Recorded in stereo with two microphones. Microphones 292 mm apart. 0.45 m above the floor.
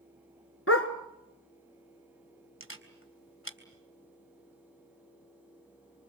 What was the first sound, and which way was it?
A dog barking, 50° left (ahead or behind).